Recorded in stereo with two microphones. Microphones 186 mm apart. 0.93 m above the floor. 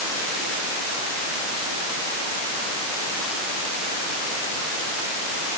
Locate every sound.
Only background noise.